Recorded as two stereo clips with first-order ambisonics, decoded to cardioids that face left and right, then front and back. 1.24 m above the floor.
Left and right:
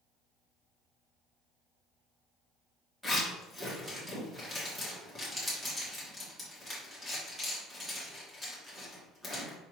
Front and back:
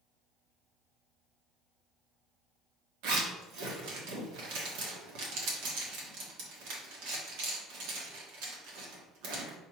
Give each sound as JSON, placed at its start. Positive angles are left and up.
{"t": 3.0, "sound": "a zipper", "azimuth_deg": 180, "distance_m": 1.4}